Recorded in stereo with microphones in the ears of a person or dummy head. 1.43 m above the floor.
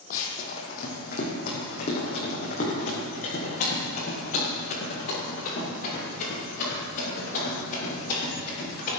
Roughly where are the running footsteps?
Left.